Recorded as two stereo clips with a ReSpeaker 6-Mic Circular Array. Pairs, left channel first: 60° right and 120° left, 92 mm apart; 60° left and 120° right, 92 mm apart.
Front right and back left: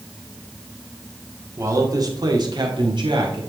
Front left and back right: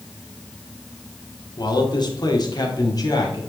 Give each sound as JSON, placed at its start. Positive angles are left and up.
{"t": 1.6, "sound": "a man speaking", "azimuth_deg": 70, "distance_m": 1.3}